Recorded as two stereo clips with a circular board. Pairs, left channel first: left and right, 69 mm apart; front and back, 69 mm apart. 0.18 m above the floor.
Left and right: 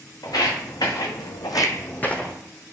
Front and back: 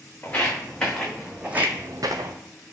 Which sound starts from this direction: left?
Footsteps, at 0.2 s.